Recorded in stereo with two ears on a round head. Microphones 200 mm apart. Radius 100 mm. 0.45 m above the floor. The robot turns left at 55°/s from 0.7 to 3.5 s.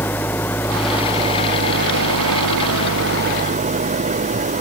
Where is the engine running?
10° left; by 4.6 s 145° right.